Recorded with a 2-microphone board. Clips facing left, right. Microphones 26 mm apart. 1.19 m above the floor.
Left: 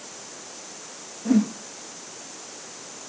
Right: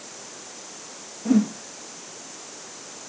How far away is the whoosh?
About 0.6 m.